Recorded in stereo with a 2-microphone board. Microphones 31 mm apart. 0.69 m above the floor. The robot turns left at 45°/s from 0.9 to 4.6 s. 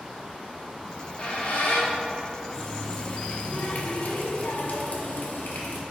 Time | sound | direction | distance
0.9 | a squeak | 30° left (ahead or behind) | 0.8 m
2.5 | a running tap | 170° left | 0.6 m